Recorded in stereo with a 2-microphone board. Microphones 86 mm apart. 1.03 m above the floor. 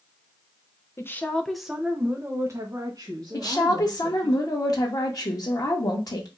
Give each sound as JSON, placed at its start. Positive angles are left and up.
{"t": 1.0, "sound": "a woman speaking", "side_deg": 30, "distance_m": 0.7}
{"t": 3.3, "sound": "a woman speaking", "side_deg": 50, "distance_m": 1.7}